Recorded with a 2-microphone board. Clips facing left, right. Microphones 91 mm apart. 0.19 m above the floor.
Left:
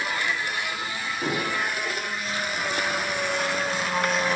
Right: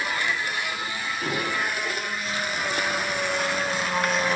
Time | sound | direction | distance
1.2 | dishes clattering | 25° left (ahead or behind) | 8 m